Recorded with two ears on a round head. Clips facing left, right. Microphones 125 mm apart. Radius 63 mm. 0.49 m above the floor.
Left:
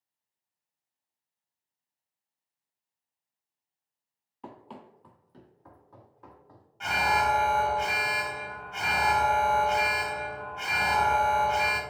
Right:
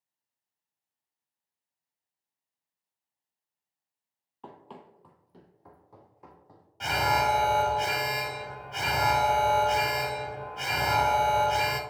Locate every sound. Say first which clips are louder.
4.4 s running footsteps: left 1 dB; 10° left (ahead or behind), 0.7 m; by 6.7 s 15° right (ahead or behind), 1.7 m
6.8 s an alarm: even; 40° right (ahead or behind), 0.9 m